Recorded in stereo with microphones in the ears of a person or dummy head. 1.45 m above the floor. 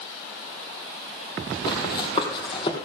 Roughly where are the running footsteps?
Left.